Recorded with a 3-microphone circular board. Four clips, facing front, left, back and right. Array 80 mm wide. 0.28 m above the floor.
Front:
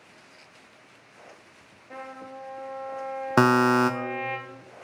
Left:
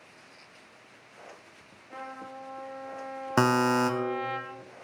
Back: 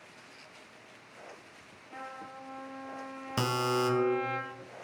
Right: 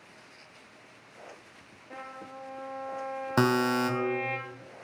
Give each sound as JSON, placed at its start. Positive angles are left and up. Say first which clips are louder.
{"t": 1.9, "sound": "a trumpet", "louder": "left 2 dB, front 4 dB", "azimuth_deg": -25, "distance_m": 1.7}
{"t": 3.4, "sound": "a buzzer", "louder": "left 2 dB, front 10 dB", "azimuth_deg": 10, "distance_m": 0.6}